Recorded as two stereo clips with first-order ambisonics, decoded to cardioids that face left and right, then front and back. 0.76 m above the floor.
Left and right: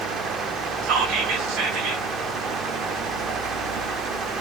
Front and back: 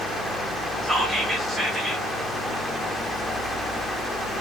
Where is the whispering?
105° right, 1.5 m.